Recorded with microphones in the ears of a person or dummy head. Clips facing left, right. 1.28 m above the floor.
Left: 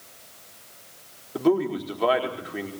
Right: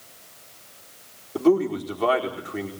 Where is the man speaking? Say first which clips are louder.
Right 2 dB; 5° right (ahead or behind), 4.5 m.